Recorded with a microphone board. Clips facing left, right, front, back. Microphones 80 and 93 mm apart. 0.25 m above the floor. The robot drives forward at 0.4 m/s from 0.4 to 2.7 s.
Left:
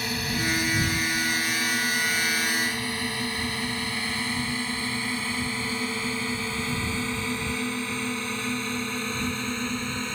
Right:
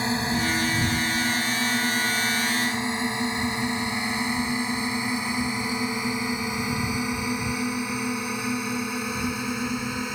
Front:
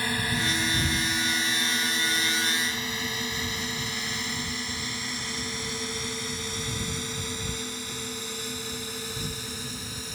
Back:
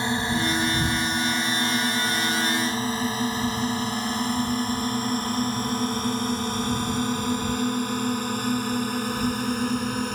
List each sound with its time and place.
0.0 s a drone: 130° right; by 10.2 s 170° right